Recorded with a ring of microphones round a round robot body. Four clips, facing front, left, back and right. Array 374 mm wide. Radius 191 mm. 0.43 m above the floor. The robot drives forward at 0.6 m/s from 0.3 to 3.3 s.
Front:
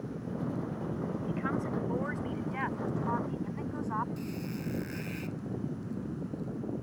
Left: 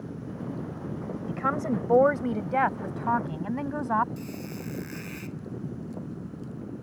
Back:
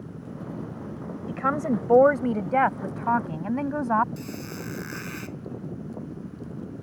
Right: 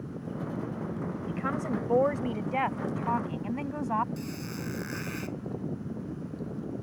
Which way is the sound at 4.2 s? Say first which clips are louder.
Even, back 2 dB; 160° right.